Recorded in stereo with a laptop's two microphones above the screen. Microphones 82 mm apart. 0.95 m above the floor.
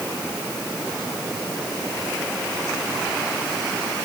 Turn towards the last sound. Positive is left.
No sound to turn to.